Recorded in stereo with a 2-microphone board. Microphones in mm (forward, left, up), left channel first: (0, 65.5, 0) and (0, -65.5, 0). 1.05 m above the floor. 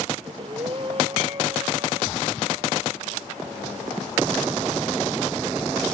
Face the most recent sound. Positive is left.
turn(degrees=-40)  # may be behind; listen again after turning